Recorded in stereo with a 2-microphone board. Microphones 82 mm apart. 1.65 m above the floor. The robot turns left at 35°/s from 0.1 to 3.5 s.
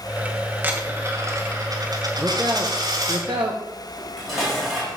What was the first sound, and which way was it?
A dropped coin, 30° right.